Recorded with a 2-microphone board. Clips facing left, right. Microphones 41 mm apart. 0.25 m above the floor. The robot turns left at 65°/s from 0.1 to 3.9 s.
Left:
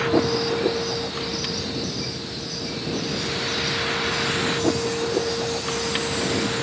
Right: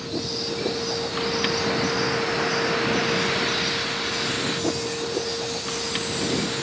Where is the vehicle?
55° left; by 6.6 s 165° left.